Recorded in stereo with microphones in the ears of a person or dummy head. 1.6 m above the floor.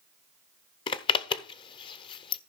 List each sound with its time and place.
0.9 s a zipper: 25° left (ahead or behind), 0.6 m